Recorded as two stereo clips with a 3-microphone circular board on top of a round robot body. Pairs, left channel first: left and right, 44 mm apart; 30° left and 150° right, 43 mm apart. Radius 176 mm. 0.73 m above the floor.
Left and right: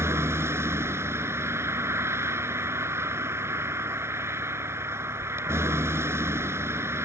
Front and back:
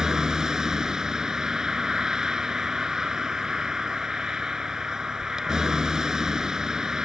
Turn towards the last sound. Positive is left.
turn(degrees=-75)